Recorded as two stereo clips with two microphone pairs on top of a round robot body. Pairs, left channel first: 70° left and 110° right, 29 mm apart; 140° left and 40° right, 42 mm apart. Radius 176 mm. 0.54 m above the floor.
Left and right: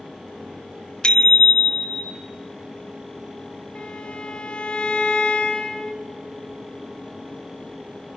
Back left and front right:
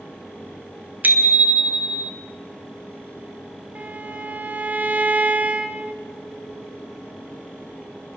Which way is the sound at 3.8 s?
15° left.